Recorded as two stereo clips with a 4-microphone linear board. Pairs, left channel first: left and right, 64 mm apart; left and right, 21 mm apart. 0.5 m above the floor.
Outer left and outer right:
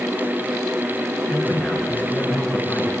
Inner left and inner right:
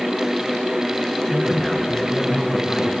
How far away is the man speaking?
About 7 m.